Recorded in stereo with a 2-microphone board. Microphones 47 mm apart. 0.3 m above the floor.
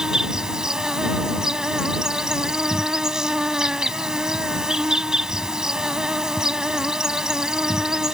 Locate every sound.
0.0 s an insect: 15° right (ahead or behind)